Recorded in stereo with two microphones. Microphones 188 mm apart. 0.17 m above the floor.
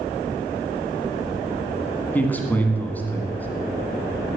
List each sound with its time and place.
2.1 s a man speaking: 10° left (ahead or behind), 1.9 m